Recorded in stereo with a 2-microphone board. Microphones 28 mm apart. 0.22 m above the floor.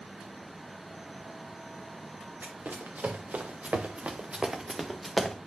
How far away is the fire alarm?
No fire alarm in this recording.